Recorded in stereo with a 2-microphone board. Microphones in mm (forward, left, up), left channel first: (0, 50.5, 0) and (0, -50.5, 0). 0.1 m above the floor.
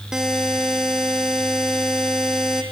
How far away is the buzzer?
About 1.8 m.